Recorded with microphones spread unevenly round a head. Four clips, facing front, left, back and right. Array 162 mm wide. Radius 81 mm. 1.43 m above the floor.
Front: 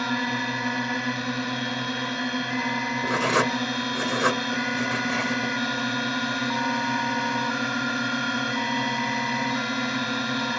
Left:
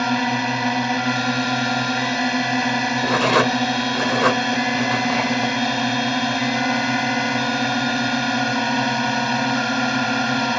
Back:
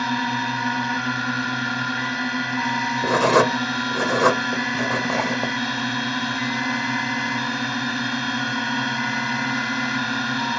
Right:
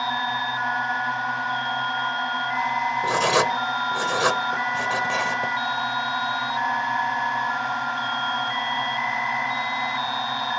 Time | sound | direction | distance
0.0 | a drone | 80° left | ?
3.0 | writing | 160° left | ?